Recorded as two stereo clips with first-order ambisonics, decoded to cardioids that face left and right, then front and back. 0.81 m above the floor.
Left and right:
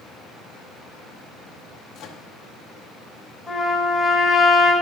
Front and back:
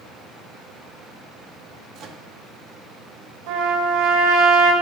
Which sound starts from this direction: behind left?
A microwave, at 1.9 s.